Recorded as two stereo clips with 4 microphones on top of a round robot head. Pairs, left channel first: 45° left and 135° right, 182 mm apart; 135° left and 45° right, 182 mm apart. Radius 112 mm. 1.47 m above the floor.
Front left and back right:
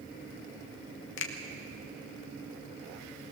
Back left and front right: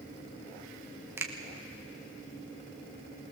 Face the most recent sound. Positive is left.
turn(degrees=30)